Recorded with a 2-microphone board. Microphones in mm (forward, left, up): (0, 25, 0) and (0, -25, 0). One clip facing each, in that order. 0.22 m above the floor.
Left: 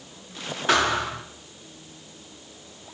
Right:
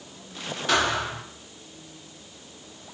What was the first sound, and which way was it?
A thud, 25° left (ahead or behind).